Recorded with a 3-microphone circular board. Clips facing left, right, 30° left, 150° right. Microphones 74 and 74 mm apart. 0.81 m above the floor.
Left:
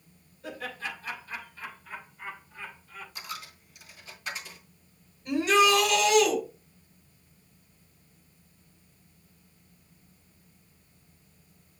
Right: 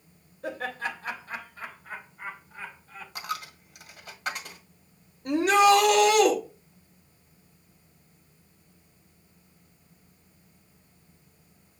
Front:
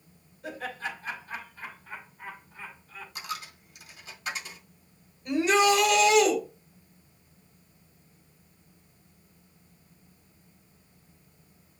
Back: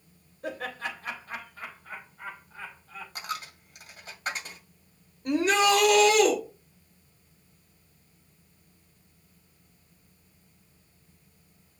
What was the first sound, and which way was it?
Laughter, 120° right.